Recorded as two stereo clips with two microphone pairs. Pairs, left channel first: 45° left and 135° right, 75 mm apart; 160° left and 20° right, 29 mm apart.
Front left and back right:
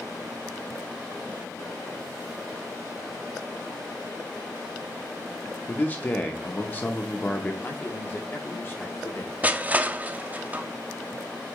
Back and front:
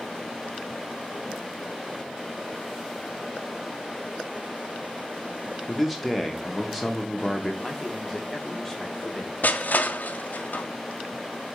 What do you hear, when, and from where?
5.7 s a man speaking: 50° left, 0.8 m
7.6 s a man speaking: 80° left, 1.5 m
9.4 s crushing: 155° left, 0.6 m